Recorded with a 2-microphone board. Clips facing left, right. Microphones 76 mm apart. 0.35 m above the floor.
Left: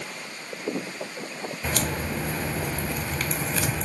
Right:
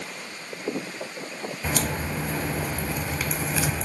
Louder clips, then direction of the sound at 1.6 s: Right 1 dB; 5° right (ahead or behind).